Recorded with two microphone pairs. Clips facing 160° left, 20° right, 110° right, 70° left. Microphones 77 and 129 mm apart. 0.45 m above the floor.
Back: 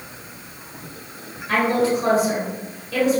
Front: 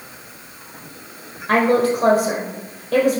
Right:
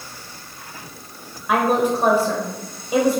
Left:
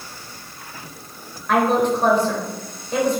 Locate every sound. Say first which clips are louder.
1.5 s a woman speaking: front 3 dB, left 1 dB; 30° right, 1.4 m